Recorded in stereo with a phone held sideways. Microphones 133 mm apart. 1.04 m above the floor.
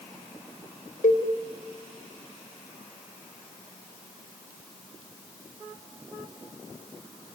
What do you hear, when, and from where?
1.0 s a cowbell: 80° left, 3 m